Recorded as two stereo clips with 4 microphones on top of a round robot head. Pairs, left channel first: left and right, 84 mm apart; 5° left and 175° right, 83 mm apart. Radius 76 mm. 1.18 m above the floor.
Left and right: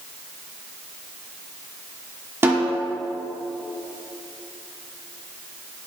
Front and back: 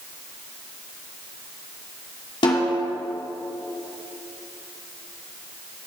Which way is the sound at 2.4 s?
25° right.